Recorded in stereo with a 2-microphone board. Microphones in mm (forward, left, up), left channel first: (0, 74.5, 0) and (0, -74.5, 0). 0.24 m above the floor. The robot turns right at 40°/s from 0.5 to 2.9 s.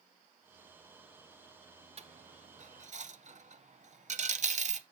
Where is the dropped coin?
45° right (ahead or behind), 0.6 m; by 4.8 s 50° right (ahead or behind), 0.6 m.